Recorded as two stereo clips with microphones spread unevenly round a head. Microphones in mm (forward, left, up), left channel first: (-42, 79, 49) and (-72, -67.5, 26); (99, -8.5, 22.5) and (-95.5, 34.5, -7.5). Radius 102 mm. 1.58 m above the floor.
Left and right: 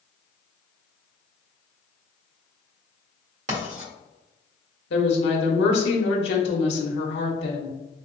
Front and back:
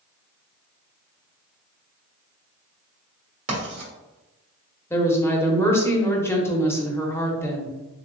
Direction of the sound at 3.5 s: 135° right.